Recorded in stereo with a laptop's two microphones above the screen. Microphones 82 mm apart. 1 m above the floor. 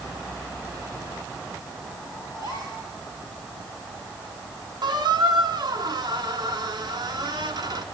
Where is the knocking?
I don't hear knocking.